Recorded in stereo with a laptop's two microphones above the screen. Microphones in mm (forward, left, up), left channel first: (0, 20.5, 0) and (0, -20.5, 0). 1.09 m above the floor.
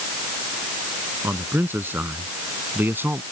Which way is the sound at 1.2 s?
60° right (ahead or behind).